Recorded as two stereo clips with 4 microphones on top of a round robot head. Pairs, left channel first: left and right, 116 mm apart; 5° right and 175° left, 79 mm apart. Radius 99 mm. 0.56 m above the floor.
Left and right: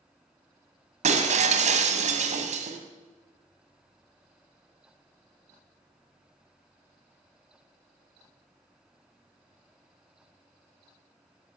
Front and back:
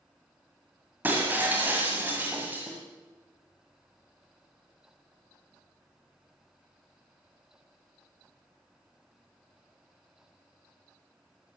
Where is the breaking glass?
110° right, 1.7 m.